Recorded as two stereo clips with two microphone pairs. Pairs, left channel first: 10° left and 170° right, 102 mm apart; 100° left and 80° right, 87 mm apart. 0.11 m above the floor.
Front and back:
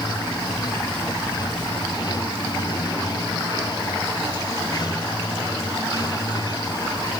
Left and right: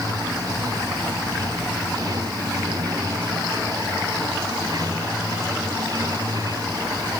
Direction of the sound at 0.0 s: 35° right.